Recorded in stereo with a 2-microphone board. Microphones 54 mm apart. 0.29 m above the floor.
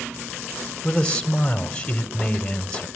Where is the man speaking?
15° left (ahead or behind), 1.7 m.